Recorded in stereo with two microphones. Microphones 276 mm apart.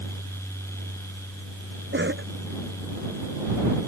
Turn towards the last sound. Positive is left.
turn(degrees=-40)  # may be behind; listen again after turning